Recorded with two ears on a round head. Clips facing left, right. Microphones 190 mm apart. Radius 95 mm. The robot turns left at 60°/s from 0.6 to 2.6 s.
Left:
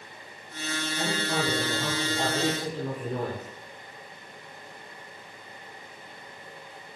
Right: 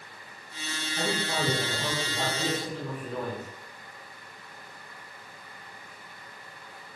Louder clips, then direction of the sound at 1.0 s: Even; 115° right.